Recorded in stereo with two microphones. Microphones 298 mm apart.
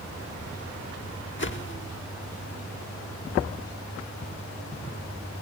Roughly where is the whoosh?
Left.